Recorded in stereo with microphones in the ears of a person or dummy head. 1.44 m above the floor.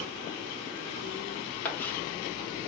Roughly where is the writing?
Centre.